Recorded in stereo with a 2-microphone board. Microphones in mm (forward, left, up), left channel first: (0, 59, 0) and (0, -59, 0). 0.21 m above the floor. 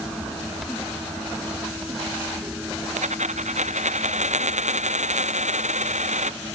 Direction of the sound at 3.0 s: 80° right.